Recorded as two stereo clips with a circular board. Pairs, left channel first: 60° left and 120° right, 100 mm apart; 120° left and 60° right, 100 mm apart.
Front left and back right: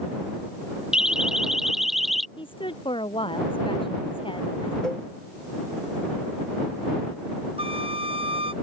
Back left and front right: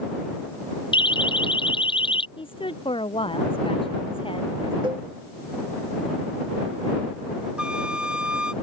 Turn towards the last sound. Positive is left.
turn(degrees=-140)